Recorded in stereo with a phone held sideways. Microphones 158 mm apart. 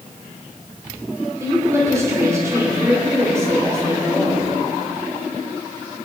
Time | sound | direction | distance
1.4 | a woman speaking | 20° right (ahead or behind) | 3 m